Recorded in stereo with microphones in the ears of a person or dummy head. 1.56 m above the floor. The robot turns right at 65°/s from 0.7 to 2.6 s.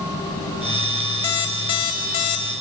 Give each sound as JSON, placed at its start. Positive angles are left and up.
{"t": 1.2, "sound": "an alarm clock", "side_deg": 15, "distance_m": 0.6}